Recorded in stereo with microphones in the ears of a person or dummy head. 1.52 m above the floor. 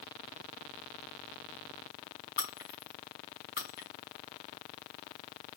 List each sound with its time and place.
2.4 s breaking glass: 60° left (ahead or behind), 4 m